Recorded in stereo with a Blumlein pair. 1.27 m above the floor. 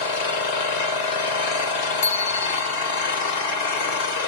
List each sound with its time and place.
0.0 s an engine running: 45° left, 2.5 m
2.0 s a bicycle bell: 55° left, 2.5 m